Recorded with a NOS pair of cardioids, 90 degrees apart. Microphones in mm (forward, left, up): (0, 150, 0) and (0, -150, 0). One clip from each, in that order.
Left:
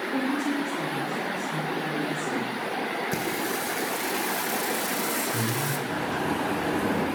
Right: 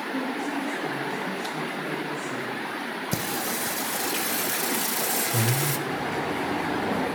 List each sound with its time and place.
0.1 s a woman speaking: 30° left, 4 m
3.1 s singing: 35° right, 1.3 m
5.9 s a bird: 5° left, 8 m